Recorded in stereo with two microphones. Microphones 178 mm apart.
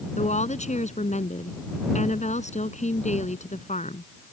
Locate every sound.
0.2 s a woman speaking: 45° left (ahead or behind)